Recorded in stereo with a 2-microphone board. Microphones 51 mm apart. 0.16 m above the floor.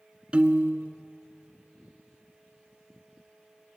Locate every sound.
0.3 s a piano: 20° right (ahead or behind), 1.3 m